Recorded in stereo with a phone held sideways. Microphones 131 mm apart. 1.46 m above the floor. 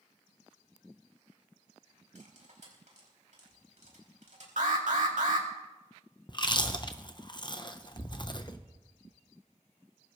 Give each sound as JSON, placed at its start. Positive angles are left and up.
{"t": 2.1, "sound": "cutlery clinking", "side_deg": -65, "distance_m": 5.0}
{"t": 4.6, "sound": "an alarm", "side_deg": -80, "distance_m": 2.5}
{"t": 6.3, "sound": "chewing", "side_deg": 35, "distance_m": 0.9}